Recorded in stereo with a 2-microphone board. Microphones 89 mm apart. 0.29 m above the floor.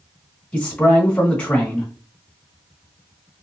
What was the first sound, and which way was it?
A man speaking, 15° left (ahead or behind).